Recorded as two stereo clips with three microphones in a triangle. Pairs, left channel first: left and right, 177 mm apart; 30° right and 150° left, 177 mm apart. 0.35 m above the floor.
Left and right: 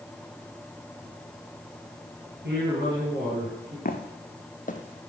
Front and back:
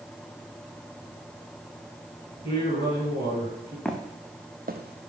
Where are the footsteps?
55° left, 1.3 m; by 5.1 s 155° left, 1.2 m.